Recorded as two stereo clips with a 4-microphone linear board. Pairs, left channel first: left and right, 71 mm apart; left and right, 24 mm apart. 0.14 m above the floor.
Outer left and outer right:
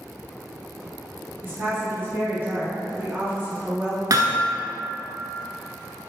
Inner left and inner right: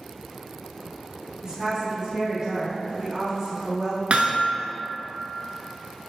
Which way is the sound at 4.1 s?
55° right (ahead or behind).